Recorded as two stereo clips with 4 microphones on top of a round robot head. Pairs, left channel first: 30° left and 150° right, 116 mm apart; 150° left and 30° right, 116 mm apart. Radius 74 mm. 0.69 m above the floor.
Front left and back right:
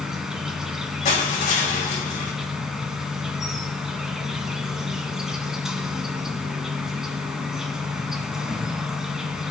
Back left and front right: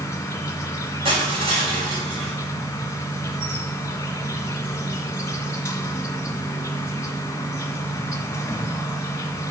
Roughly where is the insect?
Behind left.